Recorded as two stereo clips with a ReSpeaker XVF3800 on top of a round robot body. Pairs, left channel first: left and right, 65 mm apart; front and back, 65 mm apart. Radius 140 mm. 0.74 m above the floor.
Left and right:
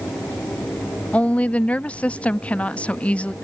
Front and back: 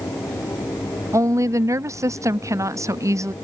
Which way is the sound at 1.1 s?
155° left.